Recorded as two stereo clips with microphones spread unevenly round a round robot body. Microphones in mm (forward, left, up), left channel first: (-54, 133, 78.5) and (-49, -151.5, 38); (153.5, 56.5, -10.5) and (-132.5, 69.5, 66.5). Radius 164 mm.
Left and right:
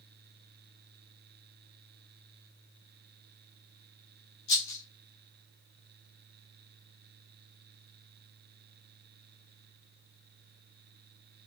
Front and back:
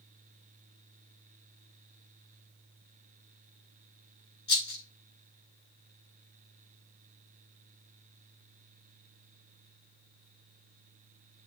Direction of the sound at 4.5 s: 50° left.